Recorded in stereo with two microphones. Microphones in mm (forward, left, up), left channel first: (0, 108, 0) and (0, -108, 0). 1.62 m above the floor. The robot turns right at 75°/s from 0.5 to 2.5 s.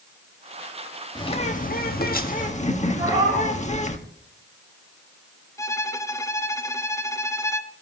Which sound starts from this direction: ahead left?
A bird, at 1.1 s.